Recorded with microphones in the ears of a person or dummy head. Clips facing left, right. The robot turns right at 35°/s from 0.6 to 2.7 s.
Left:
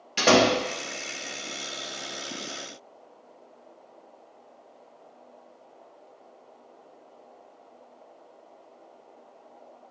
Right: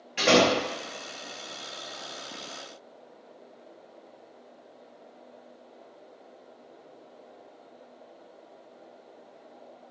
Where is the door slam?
50° left (ahead or behind), 0.9 m.